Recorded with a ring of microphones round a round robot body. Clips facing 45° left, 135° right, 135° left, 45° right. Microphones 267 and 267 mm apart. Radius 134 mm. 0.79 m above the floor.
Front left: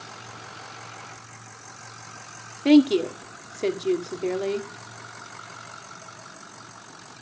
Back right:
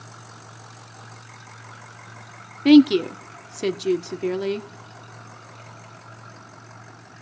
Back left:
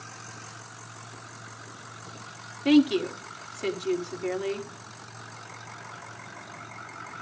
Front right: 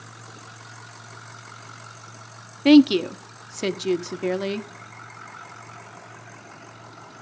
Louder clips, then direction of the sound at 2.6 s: Back right 4 dB, front right 6 dB; 70° right.